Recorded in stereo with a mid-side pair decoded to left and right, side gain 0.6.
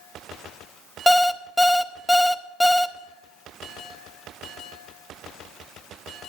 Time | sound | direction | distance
1.1 | an alarm clock | 5° left | 0.6 m